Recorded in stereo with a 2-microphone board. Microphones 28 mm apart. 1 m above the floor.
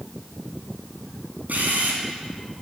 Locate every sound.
1.5 s a camera shutter: 75° right (ahead or behind), 2.5 m